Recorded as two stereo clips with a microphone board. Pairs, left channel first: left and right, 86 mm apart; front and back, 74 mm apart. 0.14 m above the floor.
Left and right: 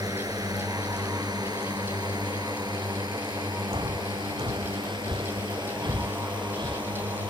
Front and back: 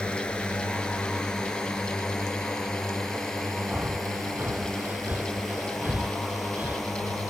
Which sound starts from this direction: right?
A drone, at 0.0 s.